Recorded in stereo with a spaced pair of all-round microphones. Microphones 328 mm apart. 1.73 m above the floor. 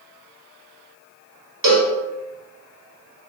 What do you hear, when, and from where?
1.6 s a cowbell: 75° right (ahead or behind), 0.7 m